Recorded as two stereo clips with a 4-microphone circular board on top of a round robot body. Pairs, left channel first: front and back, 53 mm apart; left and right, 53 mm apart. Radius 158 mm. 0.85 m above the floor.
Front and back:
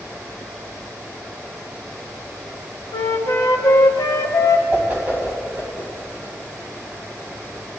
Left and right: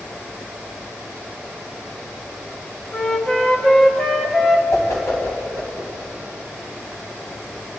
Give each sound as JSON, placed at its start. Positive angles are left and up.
{"t": 2.9, "sound": "a flute", "azimuth_deg": 10, "distance_m": 0.8}
{"t": 4.7, "sound": "a whoosh", "azimuth_deg": 120, "distance_m": 3.0}